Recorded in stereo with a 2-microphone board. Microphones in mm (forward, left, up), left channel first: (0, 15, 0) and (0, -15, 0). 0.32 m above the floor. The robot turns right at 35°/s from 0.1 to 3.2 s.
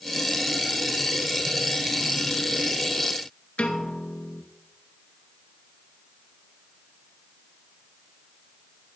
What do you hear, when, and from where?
3.6 s a piano: 55° left (ahead or behind), 1.9 m